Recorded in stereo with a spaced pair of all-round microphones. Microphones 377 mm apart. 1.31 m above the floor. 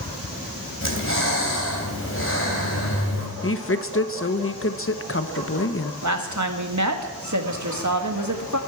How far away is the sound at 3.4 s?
About 0.8 m.